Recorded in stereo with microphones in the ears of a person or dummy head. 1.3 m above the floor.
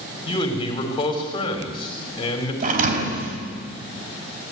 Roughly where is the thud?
Right.